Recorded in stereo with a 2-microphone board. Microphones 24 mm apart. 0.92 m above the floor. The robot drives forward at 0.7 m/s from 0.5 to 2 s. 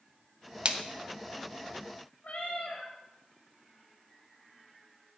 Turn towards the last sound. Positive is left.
turn(degrees=60)  # may be behind; listen again after turning